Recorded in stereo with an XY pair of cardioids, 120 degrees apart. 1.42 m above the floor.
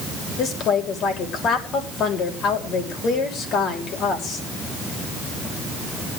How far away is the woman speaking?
About 7 m.